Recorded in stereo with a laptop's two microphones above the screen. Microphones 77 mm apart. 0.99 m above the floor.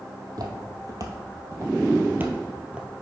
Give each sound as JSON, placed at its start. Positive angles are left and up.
{"t": 0.3, "sound": "footsteps", "side_deg": -55, "distance_m": 1.9}